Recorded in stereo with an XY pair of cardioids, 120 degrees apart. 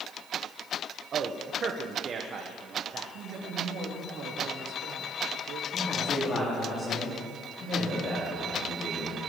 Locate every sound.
1.1 s a man speaking: 45° right, 1.3 m
3.1 s a woman speaking: 65° right, 3.5 m
5.7 s a man speaking: 40° left, 4 m